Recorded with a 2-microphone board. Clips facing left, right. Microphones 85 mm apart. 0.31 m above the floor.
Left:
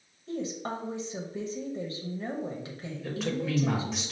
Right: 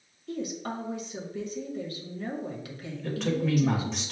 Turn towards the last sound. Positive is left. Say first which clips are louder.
# right 3 dB
turn(degrees=5)  # may be behind; listen again after turning